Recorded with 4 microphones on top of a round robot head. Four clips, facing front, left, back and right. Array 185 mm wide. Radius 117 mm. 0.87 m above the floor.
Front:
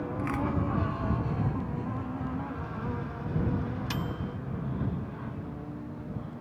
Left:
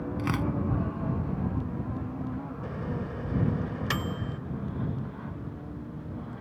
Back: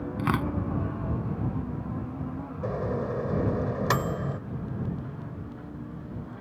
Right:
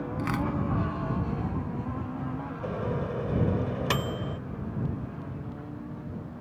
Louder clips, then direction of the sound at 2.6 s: Right 6 dB, back 6 dB; 150° right.